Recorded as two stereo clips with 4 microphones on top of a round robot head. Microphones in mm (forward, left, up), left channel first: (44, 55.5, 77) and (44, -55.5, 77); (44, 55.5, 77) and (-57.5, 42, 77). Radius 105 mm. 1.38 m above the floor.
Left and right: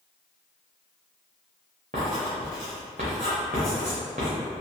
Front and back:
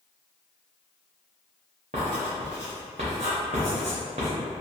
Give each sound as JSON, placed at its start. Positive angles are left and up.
{"t": 1.9, "sound": "writing", "azimuth_deg": -130, "distance_m": 0.5}